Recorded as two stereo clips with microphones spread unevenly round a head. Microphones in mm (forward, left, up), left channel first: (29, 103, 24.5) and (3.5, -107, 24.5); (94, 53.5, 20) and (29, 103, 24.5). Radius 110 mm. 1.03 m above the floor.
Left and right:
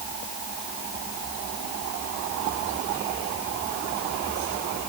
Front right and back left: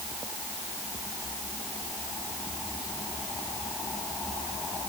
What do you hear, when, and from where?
Only background noise.